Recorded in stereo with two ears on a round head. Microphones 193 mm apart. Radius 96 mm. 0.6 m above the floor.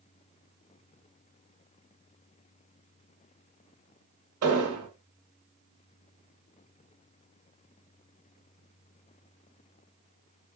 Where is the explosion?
75° right (ahead or behind), 1.1 m.